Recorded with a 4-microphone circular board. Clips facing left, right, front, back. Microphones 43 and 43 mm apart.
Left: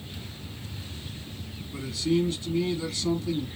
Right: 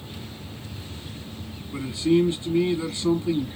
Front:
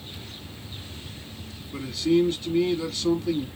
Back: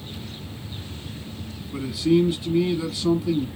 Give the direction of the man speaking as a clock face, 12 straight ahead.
4 o'clock.